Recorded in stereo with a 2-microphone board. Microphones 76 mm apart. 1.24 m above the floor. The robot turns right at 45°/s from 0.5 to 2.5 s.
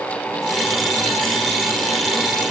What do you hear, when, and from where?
Only background noise.